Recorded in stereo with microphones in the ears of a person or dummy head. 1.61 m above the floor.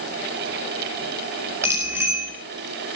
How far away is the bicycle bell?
About 5.5 m.